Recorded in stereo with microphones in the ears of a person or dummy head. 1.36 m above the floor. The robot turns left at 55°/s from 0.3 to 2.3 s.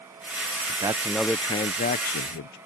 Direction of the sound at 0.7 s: 150° right.